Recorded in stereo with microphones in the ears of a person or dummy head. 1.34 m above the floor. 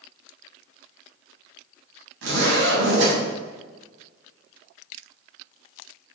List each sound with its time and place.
2.2 s a zipper: 80° right, 4.5 m